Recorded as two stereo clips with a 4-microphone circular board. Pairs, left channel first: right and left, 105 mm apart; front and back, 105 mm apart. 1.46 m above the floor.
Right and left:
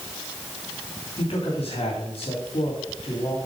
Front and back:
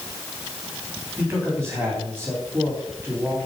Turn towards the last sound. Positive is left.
turn(degrees=-110)